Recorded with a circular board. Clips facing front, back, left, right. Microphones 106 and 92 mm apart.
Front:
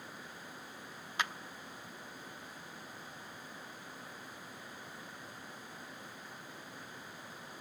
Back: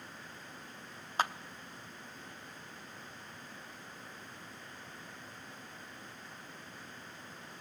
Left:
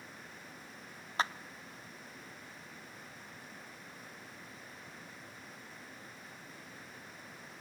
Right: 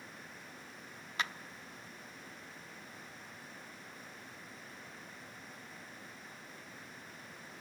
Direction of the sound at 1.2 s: 140° left.